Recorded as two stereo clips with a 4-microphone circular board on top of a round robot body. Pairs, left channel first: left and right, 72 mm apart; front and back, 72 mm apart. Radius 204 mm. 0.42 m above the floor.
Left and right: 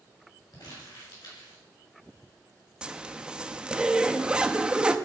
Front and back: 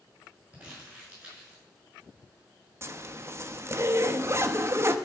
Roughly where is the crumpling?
Left.